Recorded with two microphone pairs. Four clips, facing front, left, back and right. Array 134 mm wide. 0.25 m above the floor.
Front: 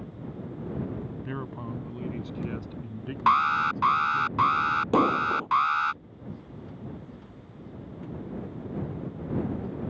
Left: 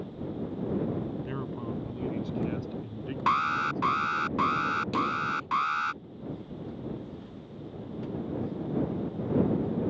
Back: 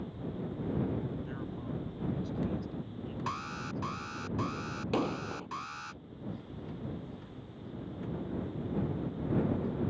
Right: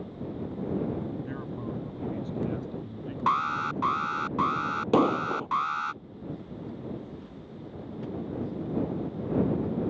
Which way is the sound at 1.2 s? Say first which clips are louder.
Left 1 dB, front 4 dB; 20° left.